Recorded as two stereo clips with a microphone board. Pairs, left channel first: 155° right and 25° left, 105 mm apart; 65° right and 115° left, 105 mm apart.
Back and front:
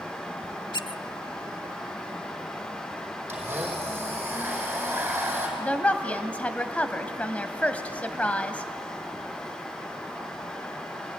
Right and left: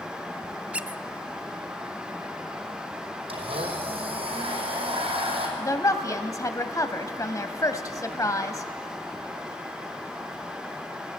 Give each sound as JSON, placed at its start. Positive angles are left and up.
{"t": 0.7, "sound": "a squeak", "azimuth_deg": -175, "distance_m": 0.5}
{"t": 3.3, "sound": "a blender", "azimuth_deg": 95, "distance_m": 5.0}
{"t": 5.6, "sound": "a woman speaking", "azimuth_deg": -90, "distance_m": 1.4}